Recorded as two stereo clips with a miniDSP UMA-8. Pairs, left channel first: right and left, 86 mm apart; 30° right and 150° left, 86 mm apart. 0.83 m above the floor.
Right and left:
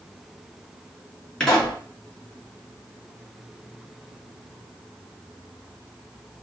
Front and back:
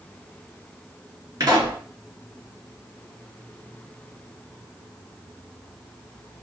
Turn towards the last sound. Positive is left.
turn(degrees=-170)